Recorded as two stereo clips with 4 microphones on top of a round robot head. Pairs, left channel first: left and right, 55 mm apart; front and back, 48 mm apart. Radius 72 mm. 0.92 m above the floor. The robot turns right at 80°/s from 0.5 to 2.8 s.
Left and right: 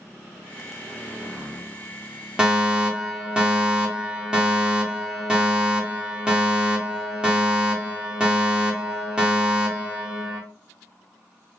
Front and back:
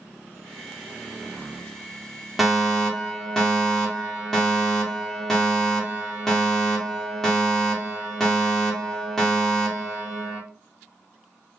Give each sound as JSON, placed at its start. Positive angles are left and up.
{"t": 2.4, "sound": "a fire alarm", "azimuth_deg": -95, "distance_m": 1.2}